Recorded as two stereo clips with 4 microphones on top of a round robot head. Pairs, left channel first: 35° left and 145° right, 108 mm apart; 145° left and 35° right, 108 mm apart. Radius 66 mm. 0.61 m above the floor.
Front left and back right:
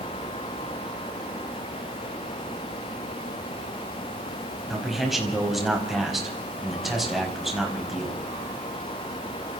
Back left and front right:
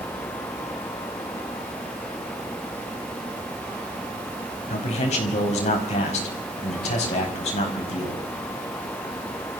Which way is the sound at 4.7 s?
125° left.